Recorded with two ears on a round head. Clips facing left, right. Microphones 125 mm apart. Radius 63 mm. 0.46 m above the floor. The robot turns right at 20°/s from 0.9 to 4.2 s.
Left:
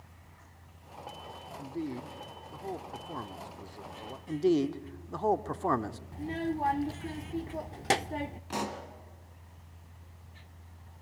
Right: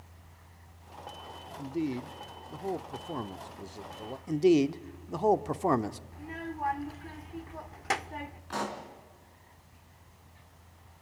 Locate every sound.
1.6 s a man speaking: 20° right (ahead or behind), 0.7 m
4.3 s a man speaking: 15° right (ahead or behind), 0.8 m
6.1 s a child speaking: 35° left (ahead or behind), 0.6 m
8.5 s a pop: 20° left (ahead or behind), 3.5 m